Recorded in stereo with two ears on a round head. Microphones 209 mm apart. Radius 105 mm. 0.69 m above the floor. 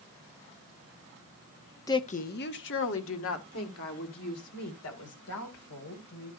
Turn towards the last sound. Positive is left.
turn(degrees=70)  # may be behind; listen again after turning